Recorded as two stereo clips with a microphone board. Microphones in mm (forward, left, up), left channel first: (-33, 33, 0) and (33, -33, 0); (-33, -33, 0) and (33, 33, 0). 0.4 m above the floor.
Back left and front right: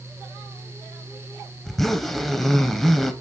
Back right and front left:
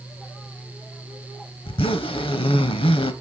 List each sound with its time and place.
1.6 s a zipper: 135° right, 0.8 m